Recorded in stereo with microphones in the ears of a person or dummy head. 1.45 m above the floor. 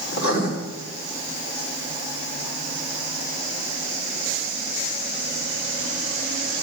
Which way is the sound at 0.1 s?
60° left (ahead or behind).